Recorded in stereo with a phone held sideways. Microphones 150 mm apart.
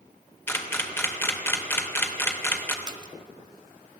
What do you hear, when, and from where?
0.5 s a camera shutter: 15° left (ahead or behind), 2.5 m
2.9 s a splash: 30° right (ahead or behind), 0.9 m